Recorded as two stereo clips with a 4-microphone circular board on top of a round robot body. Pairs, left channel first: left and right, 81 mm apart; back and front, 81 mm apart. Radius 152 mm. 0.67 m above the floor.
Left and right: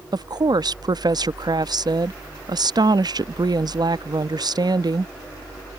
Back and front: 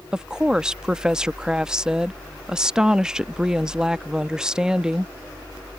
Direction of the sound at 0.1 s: 80° right.